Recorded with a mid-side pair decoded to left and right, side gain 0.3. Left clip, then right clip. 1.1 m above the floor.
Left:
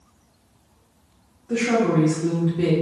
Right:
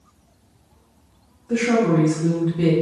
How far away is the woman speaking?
About 1.7 m.